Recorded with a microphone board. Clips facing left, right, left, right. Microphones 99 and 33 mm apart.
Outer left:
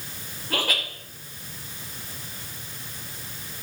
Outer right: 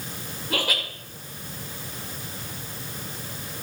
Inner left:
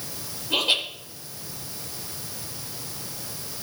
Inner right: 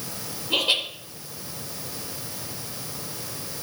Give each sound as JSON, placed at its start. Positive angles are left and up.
{"t": 0.5, "sound": "laughter", "side_deg": -10, "distance_m": 4.0}